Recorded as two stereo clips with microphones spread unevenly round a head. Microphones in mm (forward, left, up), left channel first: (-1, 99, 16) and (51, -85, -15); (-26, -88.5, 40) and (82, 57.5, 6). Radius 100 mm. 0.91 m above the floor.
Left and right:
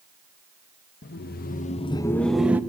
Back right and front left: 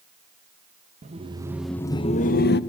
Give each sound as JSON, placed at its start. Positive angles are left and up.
{"t": 1.0, "sound": "laughter", "azimuth_deg": 75, "distance_m": 1.0}